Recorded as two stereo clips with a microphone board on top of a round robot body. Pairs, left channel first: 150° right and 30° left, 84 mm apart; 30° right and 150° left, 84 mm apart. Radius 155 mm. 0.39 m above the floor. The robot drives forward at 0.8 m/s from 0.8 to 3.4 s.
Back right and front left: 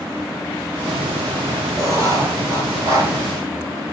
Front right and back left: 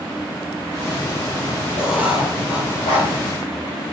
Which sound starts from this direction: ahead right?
Writing, at 1.8 s.